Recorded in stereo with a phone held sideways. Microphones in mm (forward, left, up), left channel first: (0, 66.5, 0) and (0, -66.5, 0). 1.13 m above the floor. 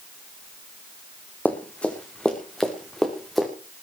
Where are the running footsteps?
10° left (ahead or behind), 3 m; by 3.5 s centre (ahead or behind), 4.5 m.